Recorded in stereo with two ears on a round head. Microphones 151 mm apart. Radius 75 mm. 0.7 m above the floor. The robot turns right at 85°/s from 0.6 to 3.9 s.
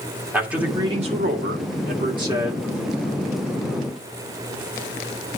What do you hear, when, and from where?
0.3 s a man speaking: 170° right, 2.5 m; by 2.7 s 5° left, 2.5 m